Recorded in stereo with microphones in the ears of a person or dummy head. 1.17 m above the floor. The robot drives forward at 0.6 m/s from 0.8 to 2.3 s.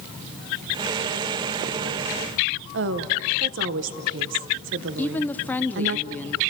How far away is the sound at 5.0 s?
About 0.6 m.